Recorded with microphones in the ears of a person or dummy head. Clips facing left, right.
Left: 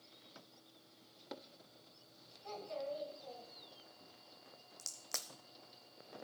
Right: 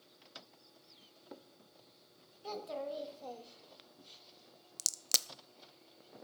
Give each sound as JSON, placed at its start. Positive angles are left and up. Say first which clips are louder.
{"t": 2.4, "sound": "a child speaking", "louder": "right 3 dB", "side_deg": -60, "distance_m": 2.5}
{"t": 4.8, "sound": "a crack", "louder": "right 5 dB", "side_deg": -45, "distance_m": 0.5}